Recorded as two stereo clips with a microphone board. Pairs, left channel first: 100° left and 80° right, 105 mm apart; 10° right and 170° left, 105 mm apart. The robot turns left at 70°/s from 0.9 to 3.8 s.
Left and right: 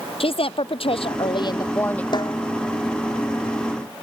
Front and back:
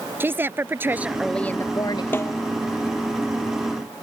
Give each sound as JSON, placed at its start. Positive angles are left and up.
{"t": 0.2, "sound": "a woman speaking", "azimuth_deg": 105}
{"t": 2.1, "sound": "a snare drum", "azimuth_deg": 60}